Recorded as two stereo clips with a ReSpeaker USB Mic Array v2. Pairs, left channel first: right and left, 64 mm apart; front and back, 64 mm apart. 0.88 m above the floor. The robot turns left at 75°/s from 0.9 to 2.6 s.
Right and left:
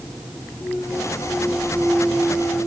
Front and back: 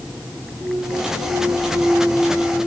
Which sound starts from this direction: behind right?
A clunk, at 0.6 s.